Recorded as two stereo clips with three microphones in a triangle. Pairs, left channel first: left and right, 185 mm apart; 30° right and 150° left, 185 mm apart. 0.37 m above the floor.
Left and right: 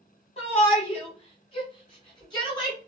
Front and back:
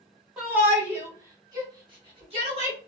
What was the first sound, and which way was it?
A shout, 65° left.